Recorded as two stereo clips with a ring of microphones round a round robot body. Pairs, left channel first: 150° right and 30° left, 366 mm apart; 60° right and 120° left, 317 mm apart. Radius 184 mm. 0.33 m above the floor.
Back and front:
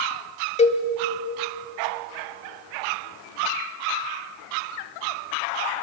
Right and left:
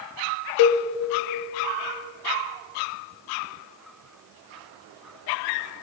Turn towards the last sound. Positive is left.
turn(degrees=-80)